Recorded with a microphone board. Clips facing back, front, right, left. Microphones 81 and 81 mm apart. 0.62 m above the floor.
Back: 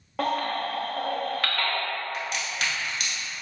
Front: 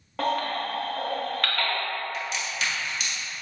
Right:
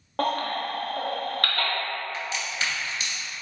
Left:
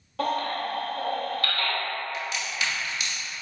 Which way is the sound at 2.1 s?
145° right.